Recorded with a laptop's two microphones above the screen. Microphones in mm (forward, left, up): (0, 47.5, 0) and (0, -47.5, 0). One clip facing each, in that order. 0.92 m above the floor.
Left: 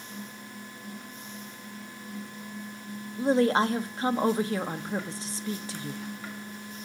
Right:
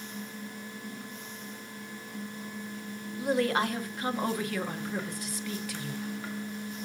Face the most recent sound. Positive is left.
turn(degrees=30)  # may be behind; listen again after turning